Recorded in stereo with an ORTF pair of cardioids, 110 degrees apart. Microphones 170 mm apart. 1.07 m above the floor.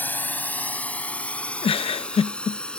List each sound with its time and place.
0.0 s a drone: 10° left; by 2.8 s 5° left
1.6 s a giggle: 35° left